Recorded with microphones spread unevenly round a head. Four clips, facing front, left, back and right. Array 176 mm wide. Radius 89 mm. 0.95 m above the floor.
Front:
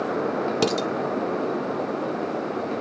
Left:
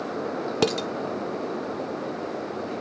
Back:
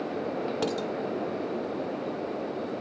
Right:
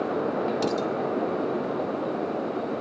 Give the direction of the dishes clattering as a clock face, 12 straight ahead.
10 o'clock.